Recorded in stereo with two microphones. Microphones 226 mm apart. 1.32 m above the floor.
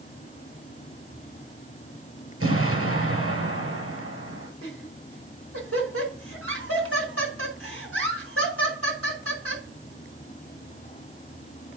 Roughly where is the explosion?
Right.